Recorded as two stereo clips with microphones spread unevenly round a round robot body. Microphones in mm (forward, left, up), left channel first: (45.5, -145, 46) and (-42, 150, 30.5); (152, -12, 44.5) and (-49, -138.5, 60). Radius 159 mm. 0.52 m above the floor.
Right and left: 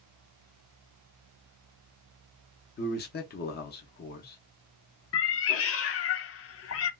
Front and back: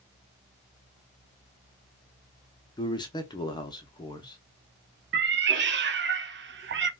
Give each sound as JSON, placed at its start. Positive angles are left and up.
{"t": 2.8, "sound": "a man speaking", "azimuth_deg": -30, "distance_m": 0.8}
{"t": 5.1, "sound": "a cat meowing", "azimuth_deg": -110, "distance_m": 0.6}